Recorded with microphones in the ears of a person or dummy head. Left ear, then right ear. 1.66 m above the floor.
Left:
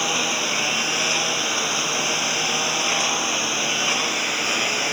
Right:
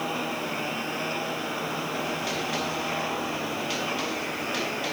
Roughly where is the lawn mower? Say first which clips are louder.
Left 8 dB; left.